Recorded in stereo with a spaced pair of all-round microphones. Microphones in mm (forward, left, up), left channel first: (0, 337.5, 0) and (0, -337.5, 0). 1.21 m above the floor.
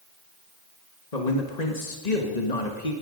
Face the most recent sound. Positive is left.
turn(degrees=65)  # may be behind; listen again after turning